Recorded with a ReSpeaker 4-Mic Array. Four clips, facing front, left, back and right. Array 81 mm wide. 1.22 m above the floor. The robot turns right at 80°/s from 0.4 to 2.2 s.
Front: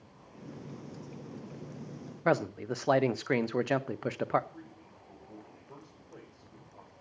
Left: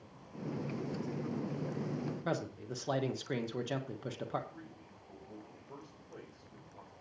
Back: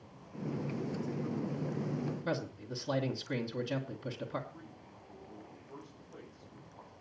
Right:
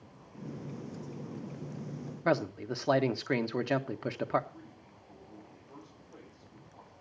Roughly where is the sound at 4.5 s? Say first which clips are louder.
Even, front 2 dB; ahead left.